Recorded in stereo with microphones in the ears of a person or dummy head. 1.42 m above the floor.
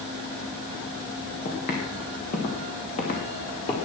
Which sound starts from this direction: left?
Footsteps, at 1.4 s.